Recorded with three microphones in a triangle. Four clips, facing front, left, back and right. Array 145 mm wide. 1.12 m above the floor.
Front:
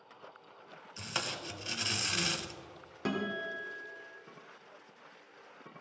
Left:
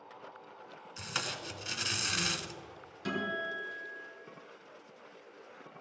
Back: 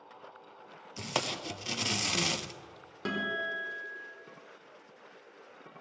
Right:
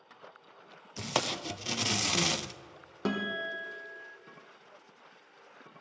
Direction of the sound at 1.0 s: 120° right.